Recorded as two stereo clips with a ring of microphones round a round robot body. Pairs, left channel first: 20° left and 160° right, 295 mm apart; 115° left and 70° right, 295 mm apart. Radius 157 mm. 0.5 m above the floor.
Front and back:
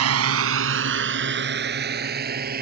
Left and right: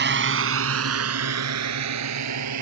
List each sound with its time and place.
0.0 s a drone: 120° right; by 2.6 s 95° right